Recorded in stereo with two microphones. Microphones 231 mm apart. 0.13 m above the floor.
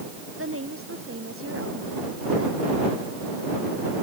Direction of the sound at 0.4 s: 70° right (ahead or behind).